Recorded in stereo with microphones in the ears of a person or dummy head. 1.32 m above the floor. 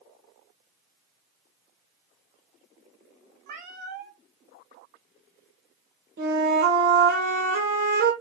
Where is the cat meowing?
55° right (ahead or behind), 1.7 m.